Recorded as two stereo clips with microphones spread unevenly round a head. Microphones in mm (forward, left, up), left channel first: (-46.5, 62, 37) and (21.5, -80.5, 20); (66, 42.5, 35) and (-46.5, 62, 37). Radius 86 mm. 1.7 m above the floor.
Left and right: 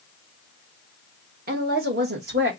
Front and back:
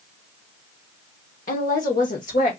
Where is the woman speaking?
25° right, 1.5 m; by 2.5 s 35° right, 2 m.